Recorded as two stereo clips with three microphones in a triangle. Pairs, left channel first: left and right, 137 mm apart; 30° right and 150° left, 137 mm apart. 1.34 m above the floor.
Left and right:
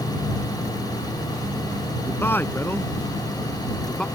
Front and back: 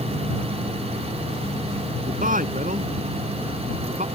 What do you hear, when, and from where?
2.1 s a man speaking: 165° left; by 4.1 s 175° left